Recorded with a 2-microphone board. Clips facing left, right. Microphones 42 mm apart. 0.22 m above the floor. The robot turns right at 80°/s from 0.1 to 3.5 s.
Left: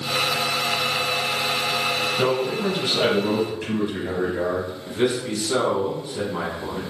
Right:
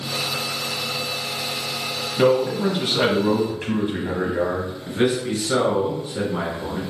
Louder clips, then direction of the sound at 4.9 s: Right 2 dB; 15° right (ahead or behind).